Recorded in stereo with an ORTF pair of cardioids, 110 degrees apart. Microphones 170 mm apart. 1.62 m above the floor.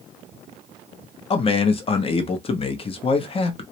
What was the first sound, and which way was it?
A man speaking, 35° left.